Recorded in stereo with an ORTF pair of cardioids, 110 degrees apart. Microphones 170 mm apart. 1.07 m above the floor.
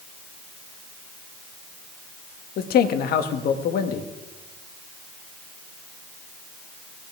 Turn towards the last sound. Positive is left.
turn(degrees=65)